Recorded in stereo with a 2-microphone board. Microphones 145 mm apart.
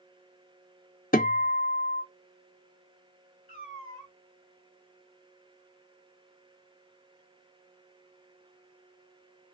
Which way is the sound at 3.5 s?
60° left (ahead or behind).